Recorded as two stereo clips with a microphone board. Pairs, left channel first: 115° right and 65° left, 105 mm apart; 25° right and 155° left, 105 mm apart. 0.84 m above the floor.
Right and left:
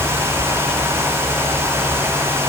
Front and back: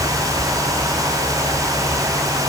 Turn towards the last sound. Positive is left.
No sound to turn to.